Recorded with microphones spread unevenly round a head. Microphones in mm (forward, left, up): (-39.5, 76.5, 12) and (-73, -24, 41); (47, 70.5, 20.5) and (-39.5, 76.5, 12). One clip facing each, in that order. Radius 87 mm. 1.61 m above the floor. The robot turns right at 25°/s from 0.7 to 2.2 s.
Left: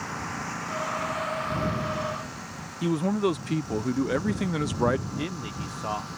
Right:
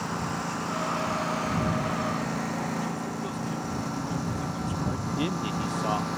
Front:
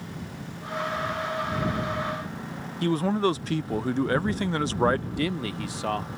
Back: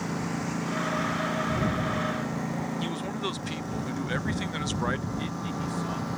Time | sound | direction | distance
0.0 | a lawn mower | 175° right | ?
2.8 | a man speaking | 45° left | ?
5.2 | a man speaking | 30° right | ?